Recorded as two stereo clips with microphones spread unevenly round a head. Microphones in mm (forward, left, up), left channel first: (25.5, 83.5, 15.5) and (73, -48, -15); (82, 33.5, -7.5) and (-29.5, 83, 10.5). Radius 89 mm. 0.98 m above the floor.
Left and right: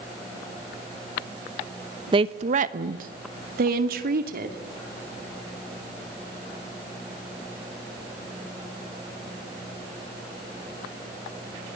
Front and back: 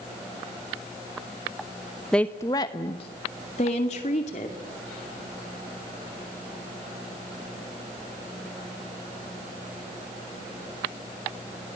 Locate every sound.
2.1 s a woman speaking: 100° right, 0.6 m; by 4.6 s 70° right, 2.5 m